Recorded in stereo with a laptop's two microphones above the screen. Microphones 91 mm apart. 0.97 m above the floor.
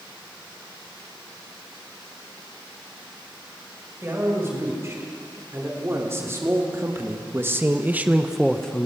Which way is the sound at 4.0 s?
30° right (ahead or behind).